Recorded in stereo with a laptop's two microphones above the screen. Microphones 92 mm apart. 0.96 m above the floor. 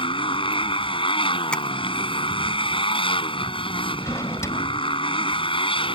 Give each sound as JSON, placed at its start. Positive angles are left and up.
{"t": 0.0, "sound": "a motorcycle", "side_deg": 70}
{"t": 1.5, "sound": "tapping", "side_deg": 10}
{"t": 4.0, "sound": "a drawer", "side_deg": 35}